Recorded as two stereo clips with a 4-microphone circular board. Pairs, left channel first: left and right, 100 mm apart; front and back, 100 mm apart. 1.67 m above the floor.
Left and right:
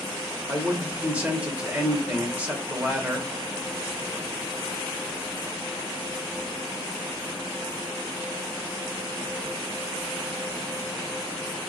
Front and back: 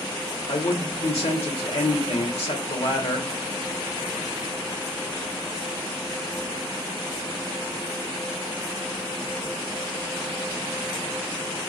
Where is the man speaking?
15° right, 1.3 m.